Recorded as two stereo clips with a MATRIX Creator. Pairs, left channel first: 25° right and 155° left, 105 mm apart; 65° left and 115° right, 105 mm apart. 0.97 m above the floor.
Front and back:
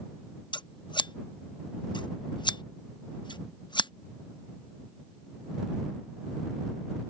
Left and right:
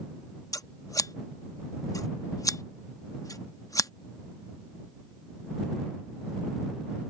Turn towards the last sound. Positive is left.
turn(degrees=15)